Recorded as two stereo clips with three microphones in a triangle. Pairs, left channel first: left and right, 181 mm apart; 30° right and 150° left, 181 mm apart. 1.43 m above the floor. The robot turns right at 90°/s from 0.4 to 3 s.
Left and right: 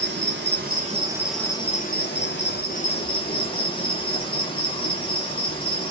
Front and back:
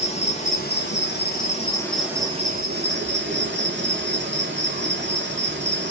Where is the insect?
85° right, 3.5 m; by 5.9 s 150° left, 3.5 m.